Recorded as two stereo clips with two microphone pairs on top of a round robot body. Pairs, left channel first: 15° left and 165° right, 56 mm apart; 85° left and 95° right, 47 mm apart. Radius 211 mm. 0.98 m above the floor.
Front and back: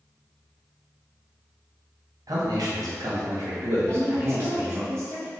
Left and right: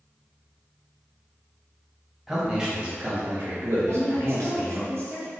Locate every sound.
2.3 s a man speaking: 175° right, 1.0 m; by 4.8 s 90° right, 1.0 m
3.8 s a woman speaking: 125° right, 1.3 m